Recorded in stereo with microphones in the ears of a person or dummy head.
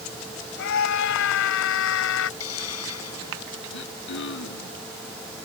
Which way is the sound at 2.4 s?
90° left.